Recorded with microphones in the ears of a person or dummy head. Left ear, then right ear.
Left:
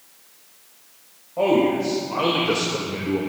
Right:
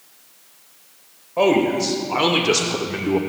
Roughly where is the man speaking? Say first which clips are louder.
Right 2 dB; right.